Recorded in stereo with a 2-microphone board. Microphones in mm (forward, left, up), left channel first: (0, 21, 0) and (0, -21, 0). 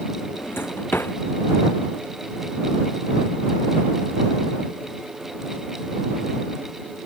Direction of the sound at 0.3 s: 60° left (ahead or behind).